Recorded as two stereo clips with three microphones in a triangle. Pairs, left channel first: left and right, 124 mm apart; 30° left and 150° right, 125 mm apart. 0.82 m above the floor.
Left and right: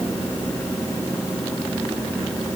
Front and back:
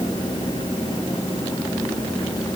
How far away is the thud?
I don't hear a thud.